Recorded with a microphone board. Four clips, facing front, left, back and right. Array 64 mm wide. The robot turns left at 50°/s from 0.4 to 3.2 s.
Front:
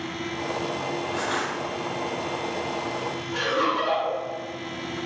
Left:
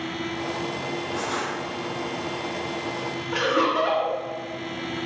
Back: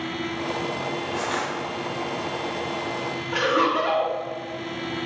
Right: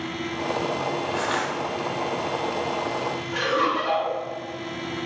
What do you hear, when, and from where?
1.1 s crushing: 90° right, 1.2 m; by 1.5 s 110° right, 1.2 m
3.3 s laughter: 140° left, 1.5 m